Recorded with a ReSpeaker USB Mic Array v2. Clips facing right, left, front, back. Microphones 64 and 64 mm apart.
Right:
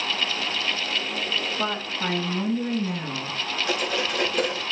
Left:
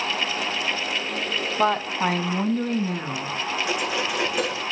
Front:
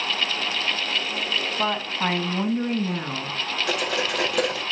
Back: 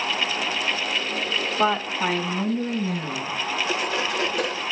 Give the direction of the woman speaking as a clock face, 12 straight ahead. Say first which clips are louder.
Left 6 dB, back 4 dB; 8 o'clock.